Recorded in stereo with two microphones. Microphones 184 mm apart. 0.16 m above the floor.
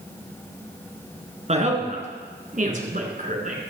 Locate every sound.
1.5 s a woman speaking: 40° right (ahead or behind), 1.6 m; by 3.6 s 45° right (ahead or behind), 1.5 m